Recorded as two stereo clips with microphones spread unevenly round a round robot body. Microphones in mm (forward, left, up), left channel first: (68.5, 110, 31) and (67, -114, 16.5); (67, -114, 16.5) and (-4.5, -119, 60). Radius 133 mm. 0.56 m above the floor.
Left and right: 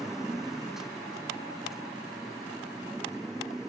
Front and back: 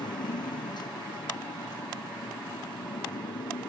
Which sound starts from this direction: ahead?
A motorcycle, at 0.0 s.